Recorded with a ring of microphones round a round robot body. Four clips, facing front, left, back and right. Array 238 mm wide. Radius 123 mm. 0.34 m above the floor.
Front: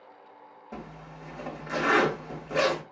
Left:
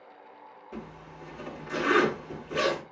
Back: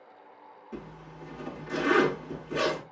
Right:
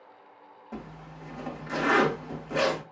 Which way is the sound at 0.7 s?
35° right.